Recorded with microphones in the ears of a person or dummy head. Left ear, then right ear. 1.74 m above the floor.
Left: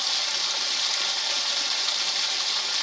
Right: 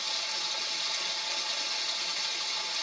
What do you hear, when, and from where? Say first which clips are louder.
0.0 s running water: left 7 dB; 55° left (ahead or behind), 0.8 m